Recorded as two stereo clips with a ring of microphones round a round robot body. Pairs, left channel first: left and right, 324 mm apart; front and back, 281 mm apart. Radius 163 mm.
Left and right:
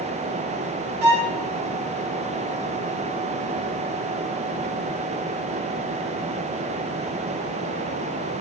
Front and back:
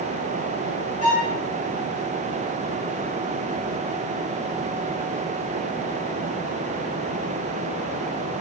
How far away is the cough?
I don't hear a cough.